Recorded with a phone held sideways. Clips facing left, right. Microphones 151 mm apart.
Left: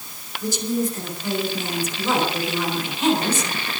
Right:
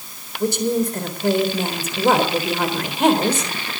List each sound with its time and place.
0.4 s a woman speaking: 60° right (ahead or behind), 4 m